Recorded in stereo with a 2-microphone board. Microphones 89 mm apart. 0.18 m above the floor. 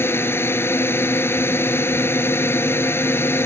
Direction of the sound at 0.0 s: 25° left (ahead or behind).